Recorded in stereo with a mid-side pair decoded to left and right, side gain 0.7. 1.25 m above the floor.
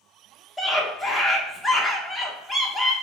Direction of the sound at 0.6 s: 10° left.